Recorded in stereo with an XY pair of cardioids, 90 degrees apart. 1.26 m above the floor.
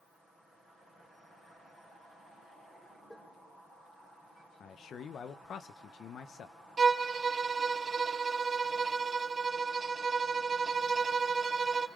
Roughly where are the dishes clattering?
Ahead.